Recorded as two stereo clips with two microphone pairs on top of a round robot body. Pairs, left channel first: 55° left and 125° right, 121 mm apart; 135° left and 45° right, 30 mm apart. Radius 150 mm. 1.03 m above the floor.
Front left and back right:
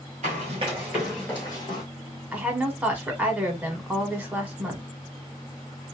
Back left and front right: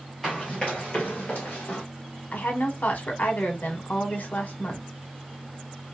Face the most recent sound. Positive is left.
turn(degrees=155)